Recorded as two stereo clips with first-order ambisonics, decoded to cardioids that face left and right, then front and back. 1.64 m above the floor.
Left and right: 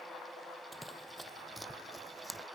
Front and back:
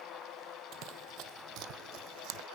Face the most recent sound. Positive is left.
turn(degrees=-175)